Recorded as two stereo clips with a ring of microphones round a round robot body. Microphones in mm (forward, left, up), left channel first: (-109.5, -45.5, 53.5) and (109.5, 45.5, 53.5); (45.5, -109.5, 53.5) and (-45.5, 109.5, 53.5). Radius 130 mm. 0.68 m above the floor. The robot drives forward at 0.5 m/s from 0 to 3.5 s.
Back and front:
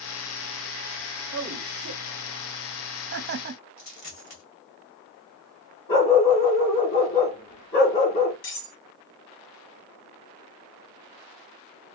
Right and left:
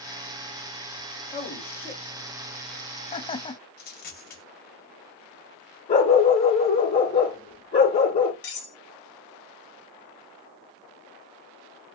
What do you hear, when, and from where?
1.3 s a man speaking: straight ahead, 1.5 m; by 3.6 s 10° right, 0.6 m
3.8 s a dropped coin: 120° right, 1.6 m
5.9 s a dog barking: 135° right, 3 m
8.4 s cutlery clinking: 115° right, 1.8 m